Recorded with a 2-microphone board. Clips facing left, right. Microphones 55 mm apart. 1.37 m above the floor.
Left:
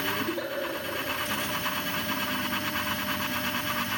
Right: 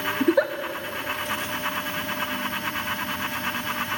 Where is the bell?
I don't hear a bell.